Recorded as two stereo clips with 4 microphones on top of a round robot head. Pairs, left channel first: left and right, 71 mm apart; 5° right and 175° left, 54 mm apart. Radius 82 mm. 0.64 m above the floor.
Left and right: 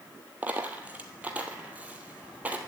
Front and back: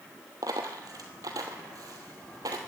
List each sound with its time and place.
0.4 s a dropped coin: 160° right, 1.1 m